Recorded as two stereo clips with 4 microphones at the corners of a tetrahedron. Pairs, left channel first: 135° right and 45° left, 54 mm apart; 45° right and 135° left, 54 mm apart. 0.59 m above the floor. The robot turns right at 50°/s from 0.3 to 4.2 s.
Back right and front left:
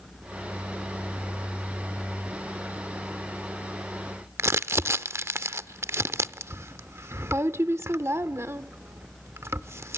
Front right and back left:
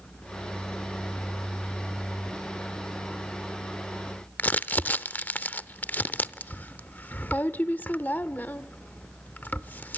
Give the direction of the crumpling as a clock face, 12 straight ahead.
12 o'clock.